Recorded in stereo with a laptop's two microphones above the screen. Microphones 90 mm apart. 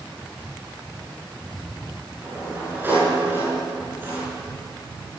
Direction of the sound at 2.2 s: 20° right (ahead or behind).